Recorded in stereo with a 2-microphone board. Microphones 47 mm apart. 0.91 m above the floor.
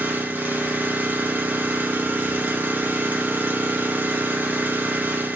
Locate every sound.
0.0 s an engine running: 40° right (ahead or behind), 1.1 m